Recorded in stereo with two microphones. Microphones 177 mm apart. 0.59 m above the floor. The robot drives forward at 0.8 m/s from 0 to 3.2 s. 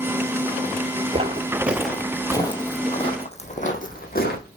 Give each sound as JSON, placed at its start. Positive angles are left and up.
{"t": 1.1, "sound": "footsteps", "side_deg": -35, "distance_m": 0.6}